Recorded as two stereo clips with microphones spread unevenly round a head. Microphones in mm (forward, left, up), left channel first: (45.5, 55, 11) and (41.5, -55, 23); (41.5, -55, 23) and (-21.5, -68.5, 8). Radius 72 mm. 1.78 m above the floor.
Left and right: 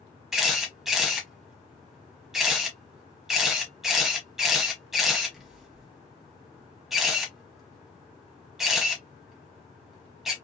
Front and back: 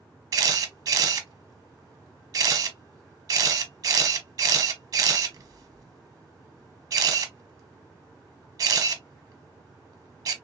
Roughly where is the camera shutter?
Behind.